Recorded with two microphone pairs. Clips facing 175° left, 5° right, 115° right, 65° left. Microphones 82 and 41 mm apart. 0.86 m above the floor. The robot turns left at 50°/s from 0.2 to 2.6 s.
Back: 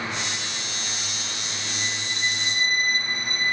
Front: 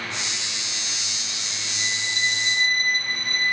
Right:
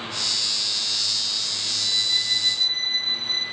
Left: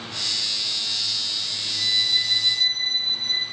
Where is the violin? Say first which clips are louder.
Front 3 dB, left 2 dB; 40° left, 2.5 m; by 3.4 s 5° right, 2.5 m.